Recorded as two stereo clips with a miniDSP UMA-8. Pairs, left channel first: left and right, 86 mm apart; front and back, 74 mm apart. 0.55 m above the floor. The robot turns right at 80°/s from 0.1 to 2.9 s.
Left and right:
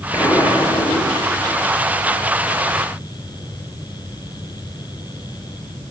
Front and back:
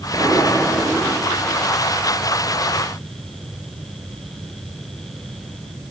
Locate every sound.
0.1 s an explosion: 25° left, 2.5 m; by 1.6 s 145° left, 2.5 m